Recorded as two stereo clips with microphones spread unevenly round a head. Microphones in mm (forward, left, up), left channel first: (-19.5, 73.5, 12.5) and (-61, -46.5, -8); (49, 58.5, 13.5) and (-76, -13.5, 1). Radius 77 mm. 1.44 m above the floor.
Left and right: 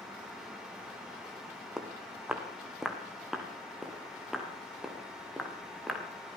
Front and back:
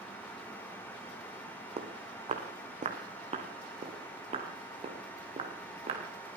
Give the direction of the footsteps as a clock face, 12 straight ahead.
7 o'clock.